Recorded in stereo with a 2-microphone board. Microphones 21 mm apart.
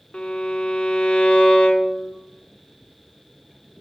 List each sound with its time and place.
0.1 s a violin: 65° left (ahead or behind), 0.8 m